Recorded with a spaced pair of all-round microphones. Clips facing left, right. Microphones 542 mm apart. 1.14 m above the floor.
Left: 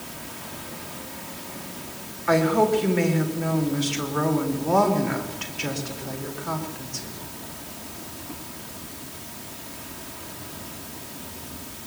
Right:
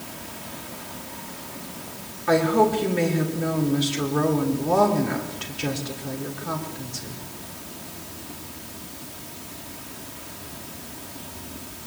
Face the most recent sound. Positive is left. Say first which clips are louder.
# even
turn(degrees=-60)  # may be behind; listen again after turning